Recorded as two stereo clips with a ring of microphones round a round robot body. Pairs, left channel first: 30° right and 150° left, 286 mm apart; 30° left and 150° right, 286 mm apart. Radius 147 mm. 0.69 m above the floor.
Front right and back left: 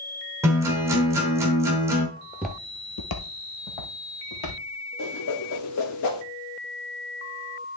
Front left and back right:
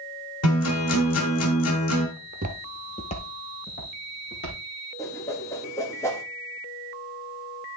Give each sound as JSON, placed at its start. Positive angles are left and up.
{"t": 0.4, "sound": "a guitar", "azimuth_deg": 70, "distance_m": 1.9}
{"t": 2.2, "sound": "footsteps", "azimuth_deg": -165, "distance_m": 0.8}
{"t": 5.0, "sound": "a whoosh", "azimuth_deg": -50, "distance_m": 1.4}